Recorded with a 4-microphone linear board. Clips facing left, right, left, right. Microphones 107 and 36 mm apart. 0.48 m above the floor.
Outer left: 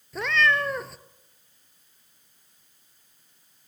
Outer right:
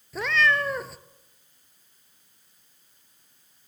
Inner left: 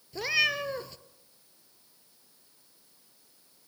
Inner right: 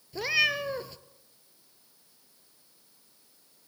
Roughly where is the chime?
No chime in this recording.